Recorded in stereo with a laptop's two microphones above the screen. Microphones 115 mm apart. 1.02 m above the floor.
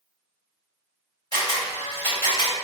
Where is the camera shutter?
40° left (ahead or behind), 2.0 m.